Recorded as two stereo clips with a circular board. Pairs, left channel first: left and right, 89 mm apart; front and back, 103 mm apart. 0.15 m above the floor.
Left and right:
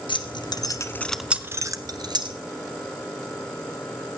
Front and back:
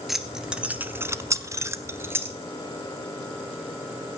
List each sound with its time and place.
0.1 s keys jangling: 95° left, 1.8 m; by 2.4 s 115° right, 2 m